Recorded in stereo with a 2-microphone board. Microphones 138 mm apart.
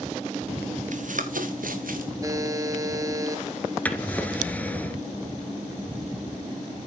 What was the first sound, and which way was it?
Running footsteps, 65° right (ahead or behind).